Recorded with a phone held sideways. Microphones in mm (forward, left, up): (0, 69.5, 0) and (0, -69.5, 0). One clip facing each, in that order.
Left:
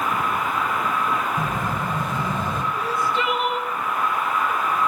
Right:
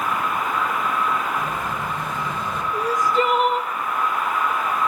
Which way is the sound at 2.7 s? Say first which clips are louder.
Right 7 dB; 40° right (ahead or behind).